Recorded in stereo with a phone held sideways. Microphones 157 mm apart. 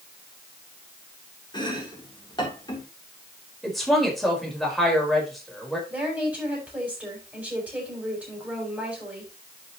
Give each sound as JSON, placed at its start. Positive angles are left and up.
{"t": 1.5, "sound": "chopping", "side_deg": 30, "distance_m": 3.5}
{"t": 3.6, "sound": "a woman speaking", "side_deg": 0, "distance_m": 4.5}
{"t": 5.9, "sound": "a woman speaking", "side_deg": -10, "distance_m": 7.0}